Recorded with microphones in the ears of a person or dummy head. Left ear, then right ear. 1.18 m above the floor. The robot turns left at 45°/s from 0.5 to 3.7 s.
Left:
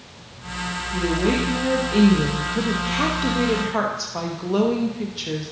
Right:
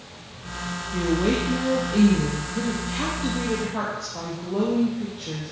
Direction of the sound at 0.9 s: 165° right.